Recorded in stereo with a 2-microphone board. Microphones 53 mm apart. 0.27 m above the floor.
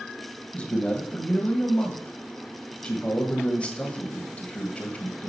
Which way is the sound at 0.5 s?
25° left (ahead or behind).